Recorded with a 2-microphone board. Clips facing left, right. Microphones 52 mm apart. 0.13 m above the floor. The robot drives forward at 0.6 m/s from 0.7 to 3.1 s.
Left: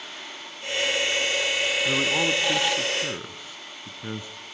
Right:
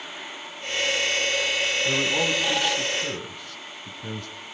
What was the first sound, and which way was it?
A man speaking, 15° left (ahead or behind).